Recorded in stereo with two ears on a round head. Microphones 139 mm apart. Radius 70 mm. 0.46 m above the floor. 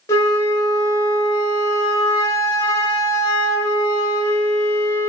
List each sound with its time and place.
0.1 s a flute: 20° left (ahead or behind), 1.7 m